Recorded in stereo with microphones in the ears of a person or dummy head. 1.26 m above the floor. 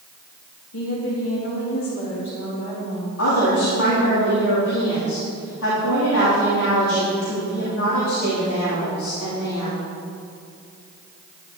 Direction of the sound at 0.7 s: 80° left.